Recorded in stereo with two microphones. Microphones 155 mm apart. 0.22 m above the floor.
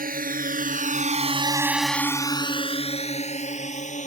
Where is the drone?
70° right (ahead or behind); by 4.1 s 50° left (ahead or behind).